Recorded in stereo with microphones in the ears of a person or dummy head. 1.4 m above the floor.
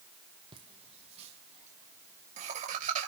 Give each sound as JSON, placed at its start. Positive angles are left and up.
{"t": 0.5, "sound": "laughter", "side_deg": -30, "distance_m": 1.4}